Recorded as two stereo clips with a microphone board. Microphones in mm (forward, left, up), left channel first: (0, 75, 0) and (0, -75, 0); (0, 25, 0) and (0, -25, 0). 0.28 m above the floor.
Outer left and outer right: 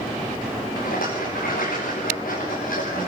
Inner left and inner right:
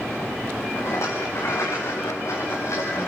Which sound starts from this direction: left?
A rattle, at 0.8 s.